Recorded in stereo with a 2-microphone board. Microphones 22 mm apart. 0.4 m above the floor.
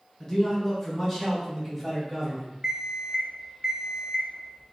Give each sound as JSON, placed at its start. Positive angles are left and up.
{"t": 0.2, "sound": "a man speaking", "side_deg": 20, "distance_m": 1.4}
{"t": 2.6, "sound": "an alarm clock", "side_deg": -55, "distance_m": 1.6}